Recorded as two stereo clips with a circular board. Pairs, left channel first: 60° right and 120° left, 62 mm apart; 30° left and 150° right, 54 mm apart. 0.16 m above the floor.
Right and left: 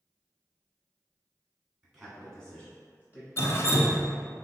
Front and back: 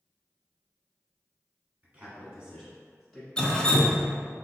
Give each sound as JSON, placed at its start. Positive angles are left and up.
{"t": 1.8, "sound": "a man speaking", "azimuth_deg": -165, "distance_m": 1.4}
{"t": 3.4, "sound": "dripping", "azimuth_deg": -40, "distance_m": 0.5}